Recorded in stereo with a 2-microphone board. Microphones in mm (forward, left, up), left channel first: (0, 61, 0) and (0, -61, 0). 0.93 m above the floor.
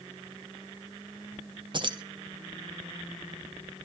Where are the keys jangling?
45° right (ahead or behind), 0.8 m.